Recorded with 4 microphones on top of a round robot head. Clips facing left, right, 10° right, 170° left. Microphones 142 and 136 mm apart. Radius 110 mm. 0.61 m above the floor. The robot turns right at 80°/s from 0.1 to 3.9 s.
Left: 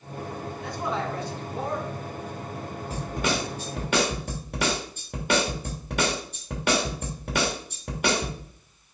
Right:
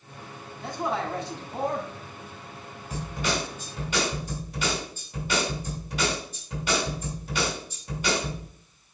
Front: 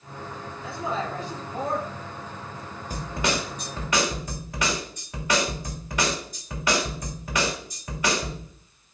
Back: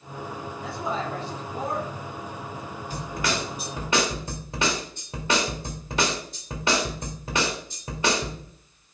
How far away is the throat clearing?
No throat clearing in this recording.